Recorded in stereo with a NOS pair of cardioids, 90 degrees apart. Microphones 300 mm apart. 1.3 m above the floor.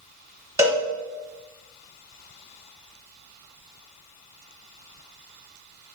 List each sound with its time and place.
0.6 s a cowbell: 10° right, 0.9 m